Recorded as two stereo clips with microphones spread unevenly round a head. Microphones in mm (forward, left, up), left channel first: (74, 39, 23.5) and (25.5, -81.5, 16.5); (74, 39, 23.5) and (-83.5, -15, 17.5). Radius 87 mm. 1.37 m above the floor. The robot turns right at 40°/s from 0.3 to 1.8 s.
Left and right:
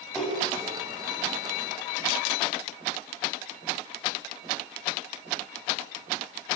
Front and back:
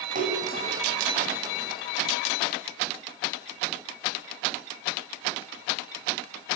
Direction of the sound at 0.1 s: 155° left.